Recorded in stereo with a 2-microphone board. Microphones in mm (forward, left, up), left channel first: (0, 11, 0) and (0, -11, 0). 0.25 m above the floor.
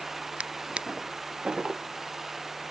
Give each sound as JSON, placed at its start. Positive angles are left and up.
{"t": 0.4, "sound": "a drawer", "side_deg": -60}